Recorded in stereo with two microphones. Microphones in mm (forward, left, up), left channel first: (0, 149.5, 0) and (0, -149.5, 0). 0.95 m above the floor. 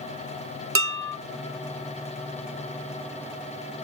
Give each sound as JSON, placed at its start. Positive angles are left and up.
{"t": 0.8, "sound": "dishes clattering", "side_deg": -45, "distance_m": 0.7}